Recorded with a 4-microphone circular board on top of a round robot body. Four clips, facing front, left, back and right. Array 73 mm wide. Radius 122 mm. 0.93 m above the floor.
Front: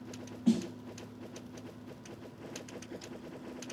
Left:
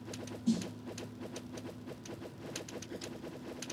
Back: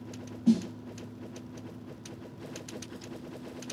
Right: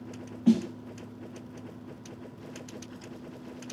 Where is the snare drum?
85° right, 1.7 m.